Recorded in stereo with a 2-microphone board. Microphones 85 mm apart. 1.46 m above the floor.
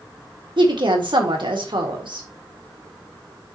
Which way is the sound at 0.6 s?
75° right (ahead or behind).